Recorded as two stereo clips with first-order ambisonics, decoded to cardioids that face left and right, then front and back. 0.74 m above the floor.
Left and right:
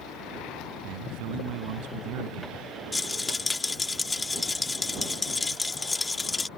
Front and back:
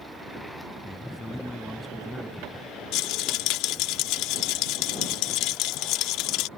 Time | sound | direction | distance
0.8 | a man speaking | 85° right | ?
2.9 | a rattle | 15° left | ?